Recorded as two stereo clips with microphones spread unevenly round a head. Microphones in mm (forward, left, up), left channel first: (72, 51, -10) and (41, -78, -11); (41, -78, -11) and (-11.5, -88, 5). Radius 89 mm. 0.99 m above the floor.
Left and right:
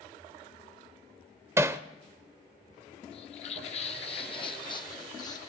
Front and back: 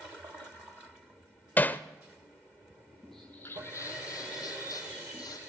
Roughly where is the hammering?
Ahead right.